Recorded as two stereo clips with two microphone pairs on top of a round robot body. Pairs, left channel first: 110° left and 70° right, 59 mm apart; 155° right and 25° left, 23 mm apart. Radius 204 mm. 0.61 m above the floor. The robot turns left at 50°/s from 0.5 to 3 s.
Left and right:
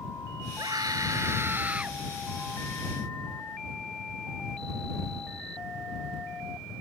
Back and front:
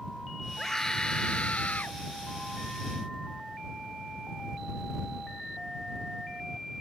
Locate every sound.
0.6 s a scream: 80° right; by 2.0 s 150° right